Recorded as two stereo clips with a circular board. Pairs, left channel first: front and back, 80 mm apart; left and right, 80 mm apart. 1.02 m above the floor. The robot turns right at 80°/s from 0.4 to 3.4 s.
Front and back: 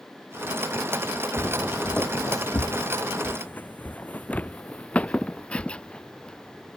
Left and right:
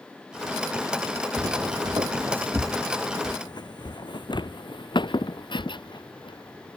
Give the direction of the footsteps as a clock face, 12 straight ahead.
5 o'clock.